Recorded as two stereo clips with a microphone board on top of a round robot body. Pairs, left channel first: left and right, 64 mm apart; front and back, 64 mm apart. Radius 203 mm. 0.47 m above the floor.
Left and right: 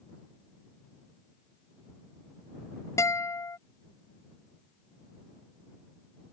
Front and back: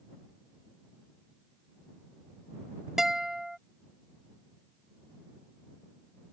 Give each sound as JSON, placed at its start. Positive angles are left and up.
{"t": 3.0, "sound": "a guitar", "azimuth_deg": 95}